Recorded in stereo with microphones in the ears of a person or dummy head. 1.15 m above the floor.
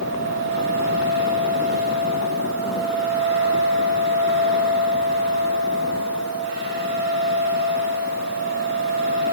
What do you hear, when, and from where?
0.0 s a fan: 60° right (ahead or behind), 7.5 m